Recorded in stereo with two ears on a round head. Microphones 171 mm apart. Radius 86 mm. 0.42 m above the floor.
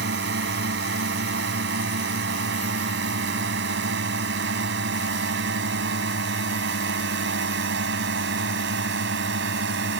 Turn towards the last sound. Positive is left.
turn(degrees=-60)  # may be behind; listen again after turning